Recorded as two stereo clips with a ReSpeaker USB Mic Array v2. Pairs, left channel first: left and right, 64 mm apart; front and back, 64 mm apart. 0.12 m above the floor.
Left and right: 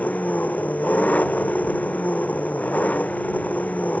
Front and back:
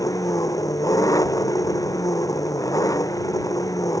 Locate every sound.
0.0 s an engine running: 25° left